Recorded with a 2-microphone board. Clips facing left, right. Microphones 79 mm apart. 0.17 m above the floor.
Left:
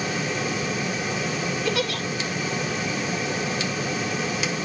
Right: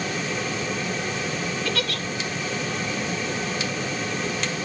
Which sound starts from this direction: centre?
A giggle, at 1.6 s.